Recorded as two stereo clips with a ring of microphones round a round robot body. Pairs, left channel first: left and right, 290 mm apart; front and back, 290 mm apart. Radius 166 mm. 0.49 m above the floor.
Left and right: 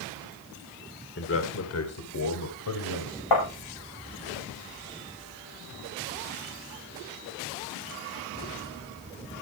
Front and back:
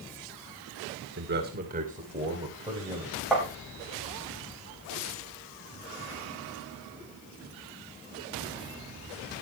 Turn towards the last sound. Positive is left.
turn(degrees=90)